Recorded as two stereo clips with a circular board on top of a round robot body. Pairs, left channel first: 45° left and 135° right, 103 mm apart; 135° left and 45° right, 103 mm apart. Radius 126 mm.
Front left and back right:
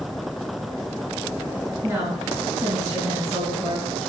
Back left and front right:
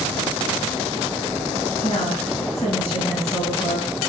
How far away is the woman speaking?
About 4.5 m.